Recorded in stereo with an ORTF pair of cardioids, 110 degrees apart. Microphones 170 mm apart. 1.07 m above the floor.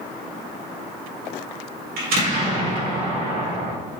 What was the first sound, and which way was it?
An explosion, 65° right.